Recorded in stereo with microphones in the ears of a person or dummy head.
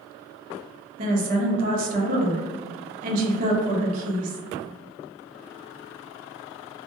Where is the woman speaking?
45° right (ahead or behind), 0.7 m.